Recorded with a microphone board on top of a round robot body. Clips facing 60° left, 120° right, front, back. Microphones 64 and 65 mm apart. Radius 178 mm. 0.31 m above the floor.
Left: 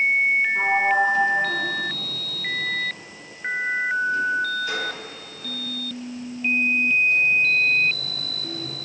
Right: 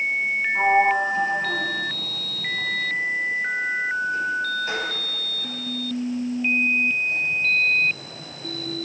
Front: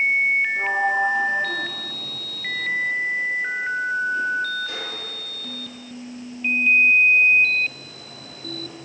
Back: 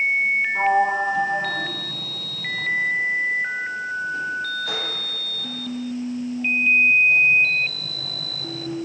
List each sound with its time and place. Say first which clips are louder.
0.6 s a sliding door: right 5 dB, back 2 dB; straight behind, 2.5 m